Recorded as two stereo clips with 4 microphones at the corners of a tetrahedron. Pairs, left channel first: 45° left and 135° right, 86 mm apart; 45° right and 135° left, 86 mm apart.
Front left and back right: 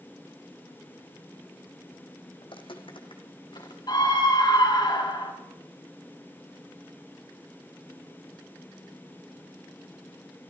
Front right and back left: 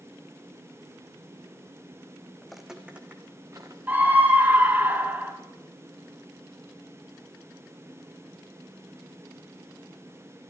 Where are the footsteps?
40° left, 1.6 m; by 3.8 s 80° left, 2.5 m.